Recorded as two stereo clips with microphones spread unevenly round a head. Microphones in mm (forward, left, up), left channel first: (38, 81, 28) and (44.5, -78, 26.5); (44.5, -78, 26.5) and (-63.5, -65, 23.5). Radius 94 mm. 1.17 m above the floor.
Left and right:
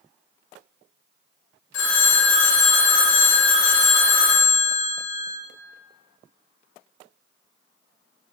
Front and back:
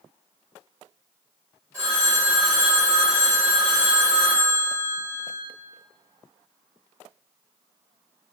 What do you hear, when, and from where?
1.7 s a phone ringing: 95° left, 0.8 m